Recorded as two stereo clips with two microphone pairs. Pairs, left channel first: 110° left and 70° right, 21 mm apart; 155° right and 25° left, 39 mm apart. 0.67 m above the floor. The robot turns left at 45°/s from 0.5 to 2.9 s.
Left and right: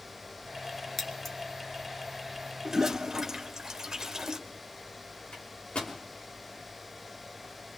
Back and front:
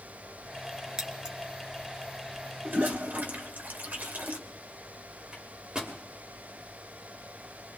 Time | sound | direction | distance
1.0 | scissors | 65° left | 1.2 m
2.6 | a toilet flushing | 5° right | 1.5 m
5.3 | a microwave | 90° left | 2.5 m